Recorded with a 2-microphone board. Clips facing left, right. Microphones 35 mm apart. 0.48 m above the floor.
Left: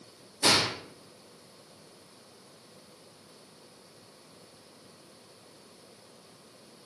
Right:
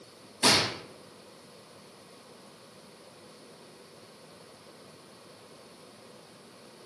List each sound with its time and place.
0.4 s a gunshot: 50° right (ahead or behind), 2.5 m